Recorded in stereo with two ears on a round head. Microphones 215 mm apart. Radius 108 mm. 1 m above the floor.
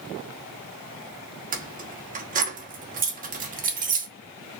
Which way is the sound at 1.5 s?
35° right (ahead or behind).